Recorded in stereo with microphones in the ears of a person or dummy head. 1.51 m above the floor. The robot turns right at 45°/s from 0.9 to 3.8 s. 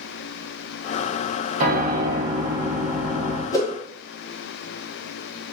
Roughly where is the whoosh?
Centre.